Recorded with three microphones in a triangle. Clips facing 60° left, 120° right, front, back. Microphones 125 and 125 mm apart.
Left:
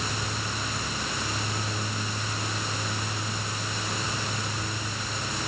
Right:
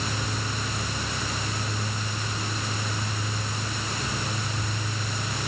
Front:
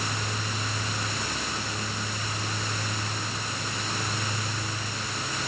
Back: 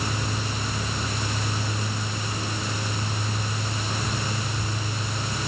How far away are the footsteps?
I don't hear footsteps.